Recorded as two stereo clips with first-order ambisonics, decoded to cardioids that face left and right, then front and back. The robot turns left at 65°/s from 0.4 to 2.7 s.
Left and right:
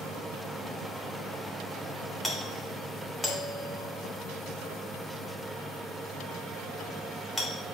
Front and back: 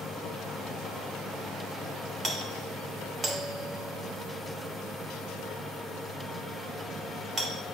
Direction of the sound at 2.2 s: 175° right.